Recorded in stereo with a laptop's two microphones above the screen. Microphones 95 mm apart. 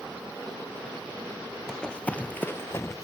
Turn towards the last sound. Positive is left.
turn(degrees=35)  # may be behind; listen again after turning